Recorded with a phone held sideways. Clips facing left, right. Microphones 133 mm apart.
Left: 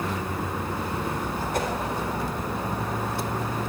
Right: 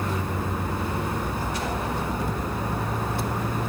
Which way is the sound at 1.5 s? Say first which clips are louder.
Left 3 dB; 50° left (ahead or behind).